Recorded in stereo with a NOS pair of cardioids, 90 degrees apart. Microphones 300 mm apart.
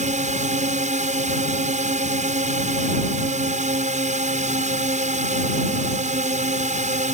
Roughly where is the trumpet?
I don't hear a trumpet.